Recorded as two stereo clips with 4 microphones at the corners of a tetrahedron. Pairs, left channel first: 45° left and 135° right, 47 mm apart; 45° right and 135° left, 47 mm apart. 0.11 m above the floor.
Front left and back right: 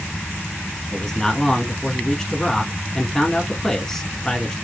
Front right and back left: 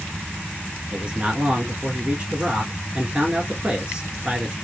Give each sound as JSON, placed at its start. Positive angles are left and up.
{"t": 0.9, "sound": "a man speaking", "azimuth_deg": 105, "distance_m": 1.2}